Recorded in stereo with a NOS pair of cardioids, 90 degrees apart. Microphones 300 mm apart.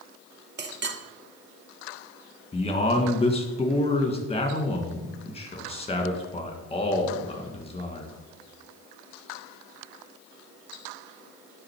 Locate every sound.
0.6 s a clink: 35° right, 1.0 m
2.5 s a man speaking: 20° left, 1.8 m